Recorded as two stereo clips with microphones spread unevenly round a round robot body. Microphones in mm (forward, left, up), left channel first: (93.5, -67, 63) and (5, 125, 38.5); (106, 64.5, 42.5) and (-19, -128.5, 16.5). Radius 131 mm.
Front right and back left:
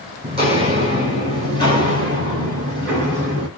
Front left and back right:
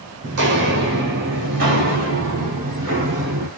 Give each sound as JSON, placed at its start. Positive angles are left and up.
{"t": 0.2, "sound": "footsteps", "azimuth_deg": -175, "distance_m": 1.1}